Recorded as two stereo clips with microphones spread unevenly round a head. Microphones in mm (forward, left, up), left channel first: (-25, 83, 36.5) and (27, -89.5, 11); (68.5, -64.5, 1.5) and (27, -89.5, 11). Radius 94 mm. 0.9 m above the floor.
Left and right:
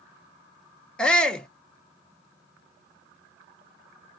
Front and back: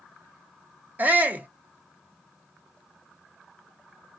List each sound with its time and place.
1.0 s a shout: 155° right, 0.5 m